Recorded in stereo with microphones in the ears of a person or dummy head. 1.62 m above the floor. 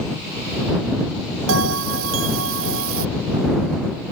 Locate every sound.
1.5 s a bell: 80° right